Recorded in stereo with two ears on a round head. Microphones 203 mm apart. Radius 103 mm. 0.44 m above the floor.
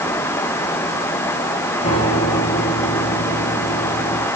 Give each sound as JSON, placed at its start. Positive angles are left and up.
{"t": 1.8, "sound": "a piano", "side_deg": 25, "distance_m": 4.5}